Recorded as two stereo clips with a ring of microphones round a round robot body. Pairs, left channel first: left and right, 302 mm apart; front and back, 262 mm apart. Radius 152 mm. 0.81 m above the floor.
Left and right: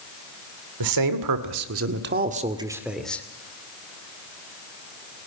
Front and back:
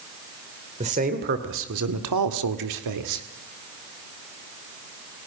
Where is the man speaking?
110° right, 2.5 m; by 3.2 s 175° left, 2 m.